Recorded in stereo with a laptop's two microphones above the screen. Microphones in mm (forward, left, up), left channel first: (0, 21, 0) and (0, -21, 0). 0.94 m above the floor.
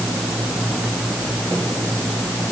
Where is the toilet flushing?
I don't hear a toilet flushing.